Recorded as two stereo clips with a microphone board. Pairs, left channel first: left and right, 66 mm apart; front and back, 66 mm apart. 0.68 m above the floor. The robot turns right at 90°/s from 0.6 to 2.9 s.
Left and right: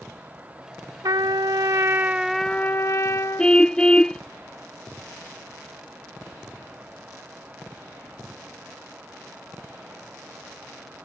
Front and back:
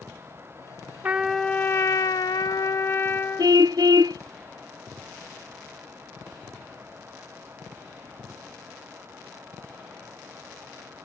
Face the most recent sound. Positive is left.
turn(degrees=170)